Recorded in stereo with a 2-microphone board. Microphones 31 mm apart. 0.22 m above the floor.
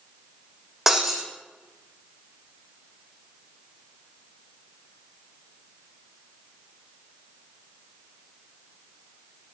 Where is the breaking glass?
10° right (ahead or behind), 2.0 m.